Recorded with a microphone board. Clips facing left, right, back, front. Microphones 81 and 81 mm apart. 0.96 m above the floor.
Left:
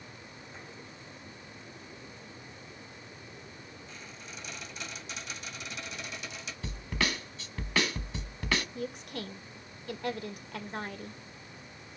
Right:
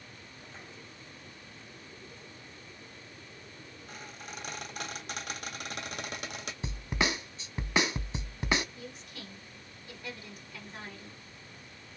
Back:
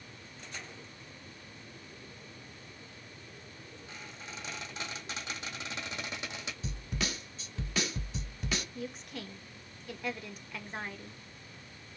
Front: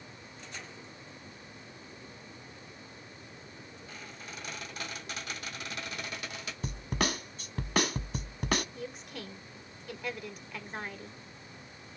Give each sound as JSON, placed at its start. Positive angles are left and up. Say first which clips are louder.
{"t": 3.9, "sound": "a squeak", "louder": "right 6 dB, even", "azimuth_deg": -115, "distance_m": 2.5}
{"t": 6.6, "sound": "a snare drum", "louder": "right 1 dB, front 6 dB", "azimuth_deg": -25, "distance_m": 0.7}
{"t": 8.8, "sound": "a woman speaking", "louder": "left 8 dB, even", "azimuth_deg": 90, "distance_m": 1.2}